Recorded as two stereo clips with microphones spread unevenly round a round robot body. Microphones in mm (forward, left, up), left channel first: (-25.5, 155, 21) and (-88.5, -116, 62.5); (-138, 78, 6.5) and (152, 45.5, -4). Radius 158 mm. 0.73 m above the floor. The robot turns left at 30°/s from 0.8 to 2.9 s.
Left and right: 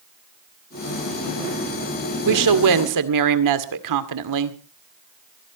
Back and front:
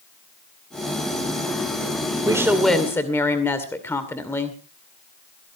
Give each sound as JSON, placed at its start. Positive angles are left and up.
{"t": 2.2, "sound": "a woman speaking", "azimuth_deg": -85, "distance_m": 2.0}